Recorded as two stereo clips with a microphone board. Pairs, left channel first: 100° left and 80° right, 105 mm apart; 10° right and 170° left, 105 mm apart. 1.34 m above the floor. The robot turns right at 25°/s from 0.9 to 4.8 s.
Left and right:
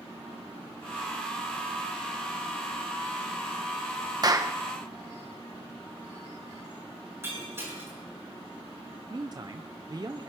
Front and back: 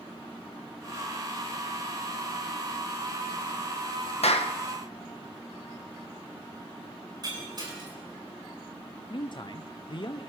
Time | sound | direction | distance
4.2 | a clap | 25° right | 1.0 m
7.2 | breaking glass | 145° right | 6 m
9.1 | a man speaking | 40° right | 0.6 m